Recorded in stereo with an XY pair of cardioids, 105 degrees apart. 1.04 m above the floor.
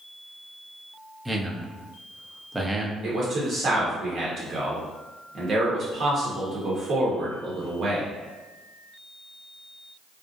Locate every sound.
1.2 s a man speaking: 15° right, 0.7 m
3.0 s a man speaking: 55° right, 0.9 m